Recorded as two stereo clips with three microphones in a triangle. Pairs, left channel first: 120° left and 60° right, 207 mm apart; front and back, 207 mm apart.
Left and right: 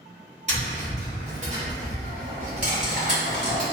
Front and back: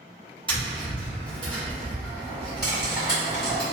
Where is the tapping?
115° right, 1.5 m.